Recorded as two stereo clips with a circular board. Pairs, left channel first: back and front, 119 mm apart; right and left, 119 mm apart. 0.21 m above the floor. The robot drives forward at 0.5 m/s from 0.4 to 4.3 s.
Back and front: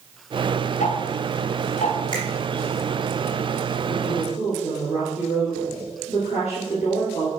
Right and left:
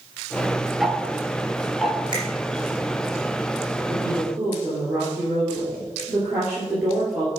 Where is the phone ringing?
No phone ringing in this recording.